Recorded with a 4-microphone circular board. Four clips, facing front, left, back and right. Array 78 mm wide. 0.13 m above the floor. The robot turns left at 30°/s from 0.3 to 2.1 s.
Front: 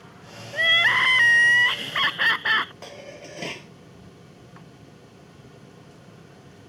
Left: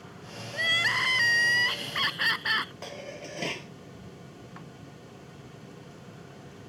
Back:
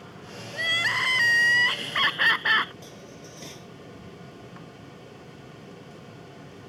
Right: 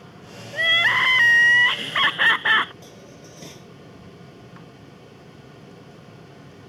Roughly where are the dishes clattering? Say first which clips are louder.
Left 4 dB, front 4 dB; ahead left.